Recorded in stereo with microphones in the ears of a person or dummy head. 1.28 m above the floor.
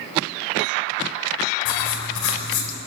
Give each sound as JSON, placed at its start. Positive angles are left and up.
{"t": 1.6, "sound": "writing", "side_deg": 85, "distance_m": 4.5}